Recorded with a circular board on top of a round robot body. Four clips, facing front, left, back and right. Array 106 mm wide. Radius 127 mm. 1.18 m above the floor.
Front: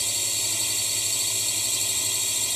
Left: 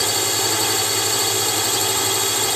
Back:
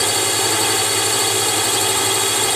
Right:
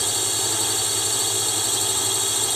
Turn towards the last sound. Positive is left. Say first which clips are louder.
# left 6 dB, back 19 dB
turn(degrees=160)